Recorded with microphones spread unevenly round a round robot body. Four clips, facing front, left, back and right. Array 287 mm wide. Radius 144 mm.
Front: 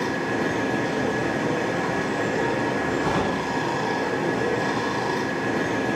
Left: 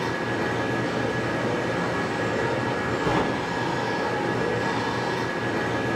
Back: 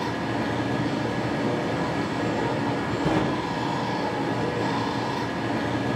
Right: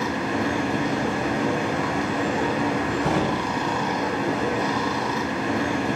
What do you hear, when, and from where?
0.0 s running water: 75° right, 0.9 m
3.0 s a gunshot: 120° right, 1.9 m